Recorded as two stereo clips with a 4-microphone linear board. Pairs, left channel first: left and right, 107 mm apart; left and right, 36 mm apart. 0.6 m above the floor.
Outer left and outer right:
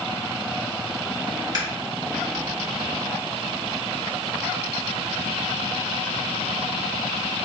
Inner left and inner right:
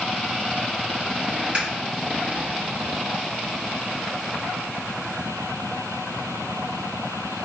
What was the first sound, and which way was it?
Scissors, 40° right (ahead or behind).